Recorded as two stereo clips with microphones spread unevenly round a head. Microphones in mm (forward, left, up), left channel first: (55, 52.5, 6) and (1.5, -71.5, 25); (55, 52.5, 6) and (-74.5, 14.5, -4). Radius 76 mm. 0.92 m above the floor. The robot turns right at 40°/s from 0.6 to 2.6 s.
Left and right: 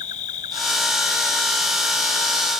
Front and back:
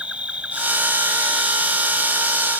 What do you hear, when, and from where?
0.0 s an insect: 115° left; by 2.6 s 165° right